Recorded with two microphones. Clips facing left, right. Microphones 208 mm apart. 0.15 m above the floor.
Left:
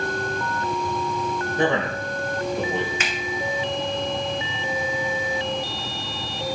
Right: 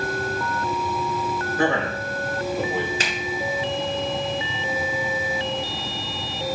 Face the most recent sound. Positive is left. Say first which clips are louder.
# right 1 dB
turn(degrees=-35)  # may be behind; listen again after turning